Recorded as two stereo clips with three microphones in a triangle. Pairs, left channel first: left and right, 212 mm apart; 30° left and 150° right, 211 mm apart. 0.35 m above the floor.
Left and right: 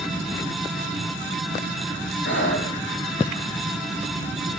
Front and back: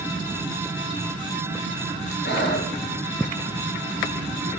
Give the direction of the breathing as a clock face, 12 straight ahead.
10 o'clock.